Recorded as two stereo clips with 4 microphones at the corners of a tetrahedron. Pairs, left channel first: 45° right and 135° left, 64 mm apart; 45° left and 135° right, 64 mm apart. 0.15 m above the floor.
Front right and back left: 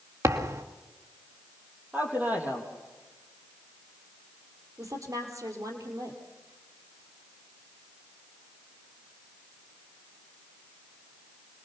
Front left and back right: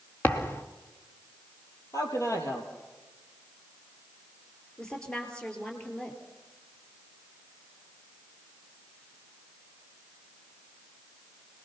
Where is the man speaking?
75° left, 4 m.